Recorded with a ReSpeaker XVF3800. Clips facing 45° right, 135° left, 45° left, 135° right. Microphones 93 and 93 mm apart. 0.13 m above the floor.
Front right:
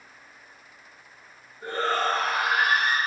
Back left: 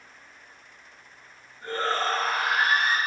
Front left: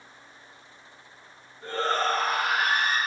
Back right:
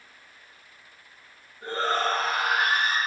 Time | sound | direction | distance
1.6 | a shout | 115° right | 1.8 m